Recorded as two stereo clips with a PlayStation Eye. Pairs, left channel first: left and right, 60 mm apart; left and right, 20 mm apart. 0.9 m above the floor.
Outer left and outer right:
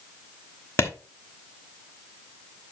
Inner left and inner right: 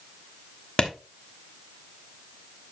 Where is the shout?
No shout in this recording.